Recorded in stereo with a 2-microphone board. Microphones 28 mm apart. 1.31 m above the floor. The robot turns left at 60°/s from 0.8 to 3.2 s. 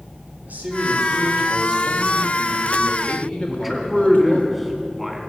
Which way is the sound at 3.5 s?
5° left (ahead or behind).